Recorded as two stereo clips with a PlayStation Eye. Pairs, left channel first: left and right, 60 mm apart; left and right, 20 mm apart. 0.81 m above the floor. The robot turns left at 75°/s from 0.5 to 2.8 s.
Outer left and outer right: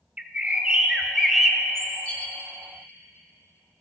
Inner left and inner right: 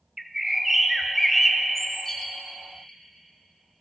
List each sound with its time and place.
0.2 s a bird: 20° right (ahead or behind), 0.6 m; by 2.3 s 20° left (ahead or behind), 0.6 m